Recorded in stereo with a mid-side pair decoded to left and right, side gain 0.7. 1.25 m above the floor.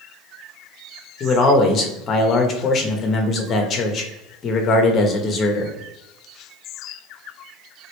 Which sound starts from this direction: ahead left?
A man speaking, at 1.2 s.